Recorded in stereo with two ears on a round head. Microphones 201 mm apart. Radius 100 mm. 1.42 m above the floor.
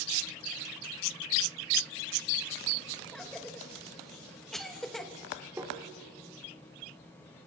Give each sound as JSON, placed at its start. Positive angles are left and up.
{"t": 3.1, "sound": "a cough", "side_deg": 0, "distance_m": 2.5}
{"t": 5.6, "sound": "tapping", "side_deg": -10, "distance_m": 3.5}